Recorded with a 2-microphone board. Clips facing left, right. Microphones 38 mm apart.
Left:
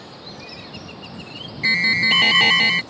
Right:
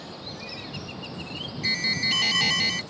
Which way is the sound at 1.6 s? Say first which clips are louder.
Left 10 dB; 40° left (ahead or behind).